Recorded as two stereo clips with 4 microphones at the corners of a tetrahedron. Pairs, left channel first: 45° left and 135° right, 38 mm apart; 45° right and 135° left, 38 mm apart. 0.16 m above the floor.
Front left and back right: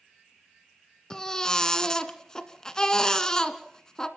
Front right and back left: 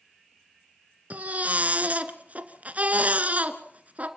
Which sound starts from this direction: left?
A baby crying, at 1.1 s.